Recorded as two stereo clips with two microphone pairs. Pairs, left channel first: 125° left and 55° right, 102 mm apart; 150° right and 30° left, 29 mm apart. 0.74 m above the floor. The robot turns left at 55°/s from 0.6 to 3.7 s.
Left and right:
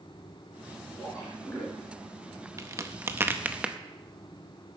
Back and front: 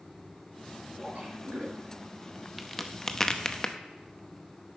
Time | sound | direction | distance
1.0 | a splash | 75° left | 5 m
2.6 | a crack | 60° right | 0.7 m